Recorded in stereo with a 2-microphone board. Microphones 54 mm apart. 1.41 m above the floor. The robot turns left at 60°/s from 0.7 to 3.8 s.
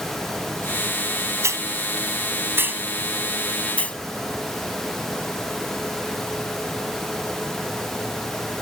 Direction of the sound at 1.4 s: 60° right (ahead or behind).